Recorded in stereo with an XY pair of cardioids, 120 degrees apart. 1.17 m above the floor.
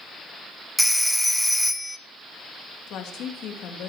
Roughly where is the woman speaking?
Left.